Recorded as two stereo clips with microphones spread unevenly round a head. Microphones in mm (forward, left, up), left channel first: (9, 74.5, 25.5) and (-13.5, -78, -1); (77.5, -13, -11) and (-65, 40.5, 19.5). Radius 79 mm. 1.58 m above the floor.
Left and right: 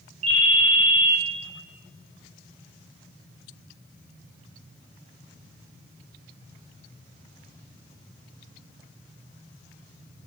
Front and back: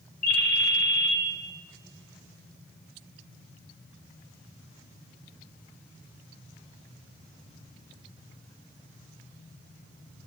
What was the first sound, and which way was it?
A ringtone, 45° right.